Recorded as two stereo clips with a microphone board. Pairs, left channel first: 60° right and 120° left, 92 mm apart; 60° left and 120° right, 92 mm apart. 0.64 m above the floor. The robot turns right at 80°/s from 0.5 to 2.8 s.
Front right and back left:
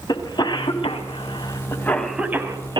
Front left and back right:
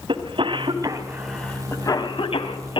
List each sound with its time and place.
0.1 s a cough: 100° right, 4 m; by 2.8 s 85° left, 4 m